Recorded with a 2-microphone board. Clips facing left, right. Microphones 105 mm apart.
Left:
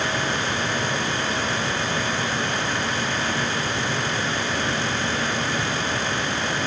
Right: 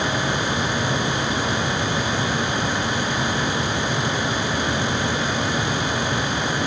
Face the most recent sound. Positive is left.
No sound to turn to.